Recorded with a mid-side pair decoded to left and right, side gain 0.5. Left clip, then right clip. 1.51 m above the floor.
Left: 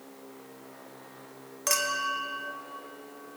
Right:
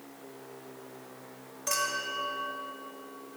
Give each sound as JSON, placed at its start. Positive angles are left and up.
{"t": 1.7, "sound": "a clink", "azimuth_deg": 65, "distance_m": 1.4}